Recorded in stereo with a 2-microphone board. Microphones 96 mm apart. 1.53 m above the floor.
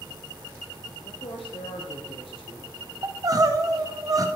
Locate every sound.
1.1 s a woman speaking: 80° left, 0.8 m
3.0 s crying: 40° right (ahead or behind), 0.6 m